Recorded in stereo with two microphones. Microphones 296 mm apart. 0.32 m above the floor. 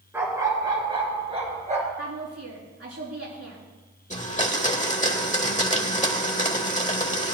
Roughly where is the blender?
Left.